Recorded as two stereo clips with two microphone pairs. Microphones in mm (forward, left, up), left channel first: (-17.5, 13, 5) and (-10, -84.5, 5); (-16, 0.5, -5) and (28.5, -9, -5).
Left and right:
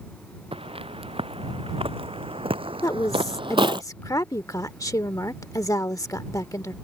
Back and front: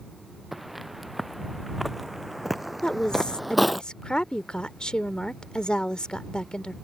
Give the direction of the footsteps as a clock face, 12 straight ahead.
3 o'clock.